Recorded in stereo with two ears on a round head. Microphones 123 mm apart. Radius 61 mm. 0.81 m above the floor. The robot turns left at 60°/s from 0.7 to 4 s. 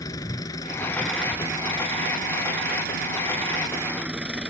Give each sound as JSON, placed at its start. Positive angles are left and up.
{"t": 0.0, "sound": "an engine running", "azimuth_deg": 25}